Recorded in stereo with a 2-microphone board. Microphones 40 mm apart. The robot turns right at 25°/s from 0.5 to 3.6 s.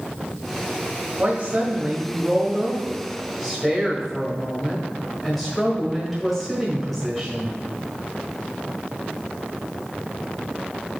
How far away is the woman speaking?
About 1.5 m.